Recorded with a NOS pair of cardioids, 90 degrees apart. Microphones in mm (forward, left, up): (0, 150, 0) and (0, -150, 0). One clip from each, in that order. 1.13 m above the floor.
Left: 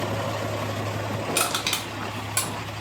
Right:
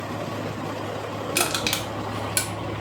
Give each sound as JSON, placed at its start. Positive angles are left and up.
{"t": 1.4, "sound": "crushing", "azimuth_deg": -15, "distance_m": 0.9}